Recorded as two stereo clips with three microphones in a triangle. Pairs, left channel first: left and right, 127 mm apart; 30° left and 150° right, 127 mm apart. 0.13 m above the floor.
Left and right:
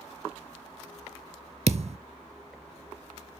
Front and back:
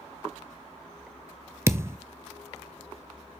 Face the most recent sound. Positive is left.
turn(degrees=-85)